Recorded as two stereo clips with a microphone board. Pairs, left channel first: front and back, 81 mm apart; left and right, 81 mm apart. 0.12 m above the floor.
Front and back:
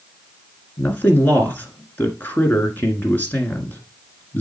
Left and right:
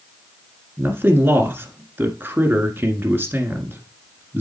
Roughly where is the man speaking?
Ahead right.